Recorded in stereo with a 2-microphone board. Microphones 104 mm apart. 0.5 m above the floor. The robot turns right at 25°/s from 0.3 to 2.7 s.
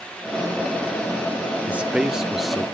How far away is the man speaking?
About 0.7 m.